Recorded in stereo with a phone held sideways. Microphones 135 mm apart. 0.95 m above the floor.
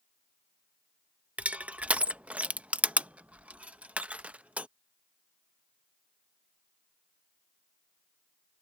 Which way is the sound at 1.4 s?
10° right (ahead or behind).